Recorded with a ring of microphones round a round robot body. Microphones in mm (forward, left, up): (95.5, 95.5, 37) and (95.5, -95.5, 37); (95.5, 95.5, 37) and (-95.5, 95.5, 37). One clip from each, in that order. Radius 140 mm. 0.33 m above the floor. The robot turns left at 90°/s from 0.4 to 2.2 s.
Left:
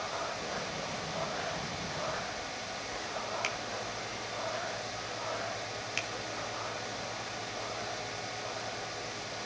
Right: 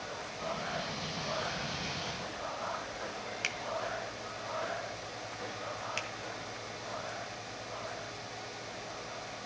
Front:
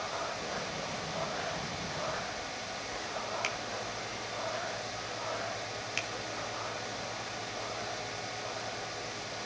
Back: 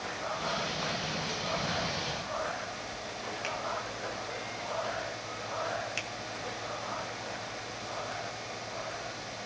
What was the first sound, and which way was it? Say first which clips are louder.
A finger snap: right 1 dB, even; 5° right.